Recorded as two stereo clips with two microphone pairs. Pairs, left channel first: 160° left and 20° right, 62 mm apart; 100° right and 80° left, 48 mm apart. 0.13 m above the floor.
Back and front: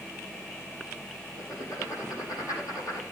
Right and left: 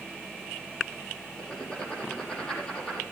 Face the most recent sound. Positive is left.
turn(degrees=-175)